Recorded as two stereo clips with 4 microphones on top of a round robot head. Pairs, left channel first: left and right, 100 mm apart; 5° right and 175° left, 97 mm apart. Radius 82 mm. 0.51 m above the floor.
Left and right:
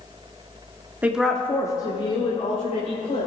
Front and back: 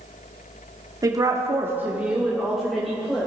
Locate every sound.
1.0 s a woman speaking: 155° right, 1.2 m; by 3.3 s 80° left, 3 m